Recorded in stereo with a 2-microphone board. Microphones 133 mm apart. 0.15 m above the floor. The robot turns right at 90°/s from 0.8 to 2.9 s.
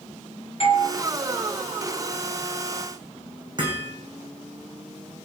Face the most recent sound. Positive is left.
turn(degrees=-35)  # may be behind; listen again after turning